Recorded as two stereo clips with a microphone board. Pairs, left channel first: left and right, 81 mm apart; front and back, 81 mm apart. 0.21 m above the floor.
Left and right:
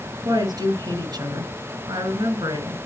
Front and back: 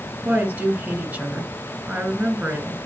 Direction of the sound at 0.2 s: 110° right.